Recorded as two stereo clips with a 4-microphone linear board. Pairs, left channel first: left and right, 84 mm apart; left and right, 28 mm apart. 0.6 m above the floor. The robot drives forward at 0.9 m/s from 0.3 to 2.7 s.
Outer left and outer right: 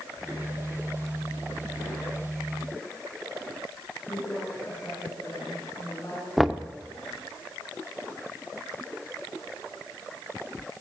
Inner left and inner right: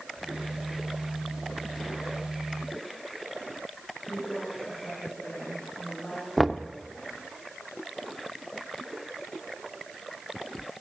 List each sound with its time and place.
4.1 s a woman speaking: 45° left (ahead or behind), 9 m
6.4 s knocking: centre (ahead or behind), 0.7 m